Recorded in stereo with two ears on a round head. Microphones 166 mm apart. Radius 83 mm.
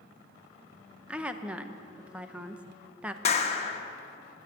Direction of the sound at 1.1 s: 5° right (ahead or behind).